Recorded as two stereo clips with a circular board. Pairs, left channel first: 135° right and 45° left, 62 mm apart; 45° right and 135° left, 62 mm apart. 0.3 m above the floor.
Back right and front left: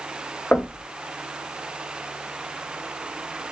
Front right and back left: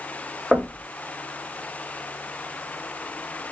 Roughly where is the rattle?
No rattle in this recording.